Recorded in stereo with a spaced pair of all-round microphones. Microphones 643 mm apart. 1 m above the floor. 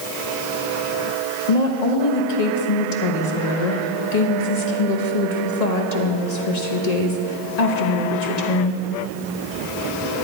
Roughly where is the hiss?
I don't hear a hiss.